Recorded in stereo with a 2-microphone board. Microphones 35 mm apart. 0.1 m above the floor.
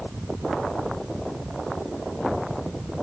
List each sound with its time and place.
Only background noise.